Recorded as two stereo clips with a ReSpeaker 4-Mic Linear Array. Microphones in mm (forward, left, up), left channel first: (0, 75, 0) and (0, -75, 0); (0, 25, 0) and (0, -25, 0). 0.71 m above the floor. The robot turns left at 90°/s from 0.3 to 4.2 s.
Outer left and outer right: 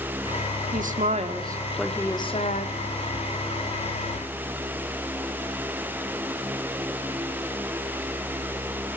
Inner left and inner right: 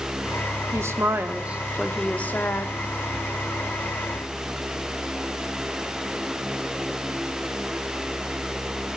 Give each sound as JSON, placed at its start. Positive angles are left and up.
{"t": 0.7, "sound": "a woman speaking", "azimuth_deg": -85, "distance_m": 2.0}